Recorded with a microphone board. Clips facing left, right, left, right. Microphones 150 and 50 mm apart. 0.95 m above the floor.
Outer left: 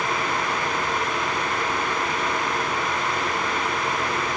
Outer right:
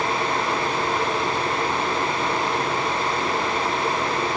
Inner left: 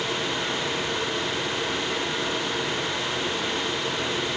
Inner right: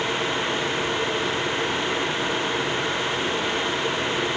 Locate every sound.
Only background noise.